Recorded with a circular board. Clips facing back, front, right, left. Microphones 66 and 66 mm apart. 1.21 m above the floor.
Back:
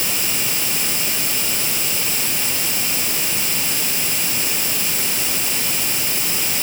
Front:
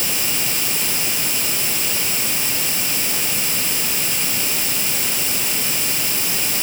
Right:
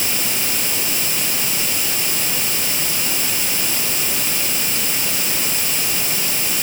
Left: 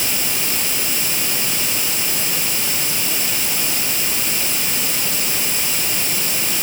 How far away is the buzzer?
No buzzer in this recording.